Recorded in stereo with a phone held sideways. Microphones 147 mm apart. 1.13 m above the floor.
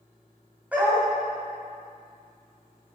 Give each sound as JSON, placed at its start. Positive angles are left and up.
{"t": 0.7, "sound": "a dog barking", "side_deg": -10, "distance_m": 2.5}